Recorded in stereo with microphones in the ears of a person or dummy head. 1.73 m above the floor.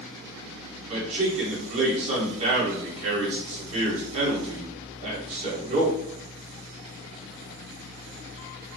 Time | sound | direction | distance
0.9 | a man speaking | 35° right (ahead or behind) | 1.6 m